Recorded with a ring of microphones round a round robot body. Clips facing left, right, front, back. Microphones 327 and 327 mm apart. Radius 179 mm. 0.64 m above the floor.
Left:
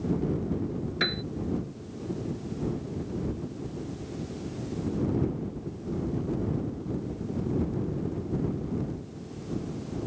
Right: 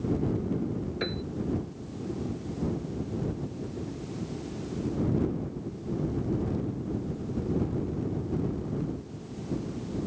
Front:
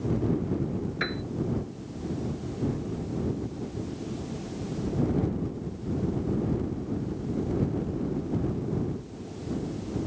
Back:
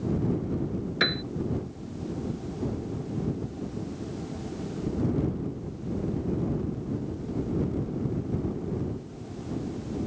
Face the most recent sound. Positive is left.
turn(degrees=150)